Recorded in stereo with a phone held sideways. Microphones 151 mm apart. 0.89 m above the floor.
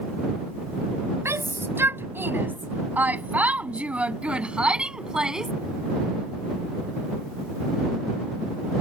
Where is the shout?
15° right (ahead or behind); by 5.5 s 5° right (ahead or behind).